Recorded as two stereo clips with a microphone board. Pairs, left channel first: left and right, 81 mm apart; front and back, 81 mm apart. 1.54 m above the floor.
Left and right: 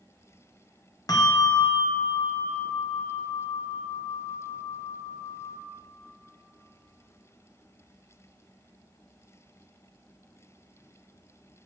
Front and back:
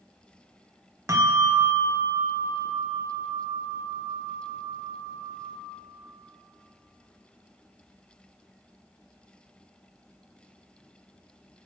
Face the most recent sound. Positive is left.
turn(degrees=130)